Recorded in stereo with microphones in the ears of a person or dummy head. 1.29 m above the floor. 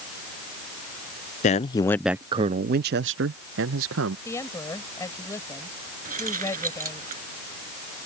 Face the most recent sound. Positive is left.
turn(degrees=-45)  # may be behind; listen again after turning